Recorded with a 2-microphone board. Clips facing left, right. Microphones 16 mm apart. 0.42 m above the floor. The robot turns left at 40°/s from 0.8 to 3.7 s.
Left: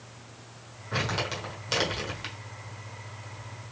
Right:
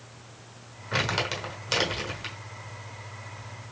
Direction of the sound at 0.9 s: 30° right (ahead or behind).